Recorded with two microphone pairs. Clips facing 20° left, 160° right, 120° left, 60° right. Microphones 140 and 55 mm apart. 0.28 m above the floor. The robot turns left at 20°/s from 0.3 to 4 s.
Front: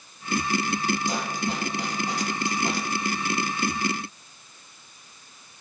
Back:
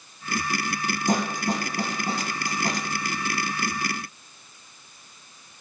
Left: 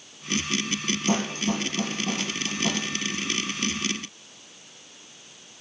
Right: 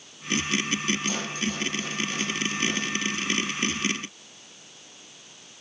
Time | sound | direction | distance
1.1 | a snare drum | 160° left | 1.6 m